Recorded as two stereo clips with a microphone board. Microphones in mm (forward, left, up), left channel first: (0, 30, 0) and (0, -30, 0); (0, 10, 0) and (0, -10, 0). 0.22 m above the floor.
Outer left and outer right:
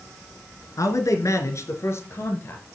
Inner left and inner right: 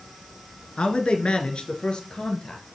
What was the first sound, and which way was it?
A man speaking, 65° left (ahead or behind).